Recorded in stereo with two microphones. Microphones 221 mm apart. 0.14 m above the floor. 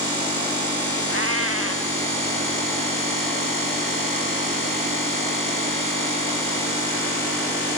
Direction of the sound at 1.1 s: 80° right.